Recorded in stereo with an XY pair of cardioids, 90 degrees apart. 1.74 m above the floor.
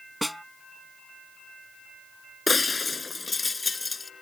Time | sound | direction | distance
0.2 | a snare drum | 5° right | ?
2.5 | breaking glass | 25° left | ?